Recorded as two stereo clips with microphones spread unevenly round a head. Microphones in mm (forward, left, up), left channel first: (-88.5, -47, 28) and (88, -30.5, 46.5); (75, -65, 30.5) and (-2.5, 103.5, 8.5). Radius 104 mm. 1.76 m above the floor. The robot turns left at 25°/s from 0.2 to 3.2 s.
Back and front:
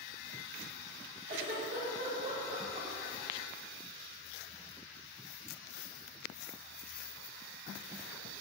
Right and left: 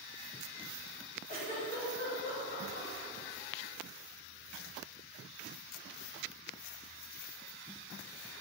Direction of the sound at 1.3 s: 15° right.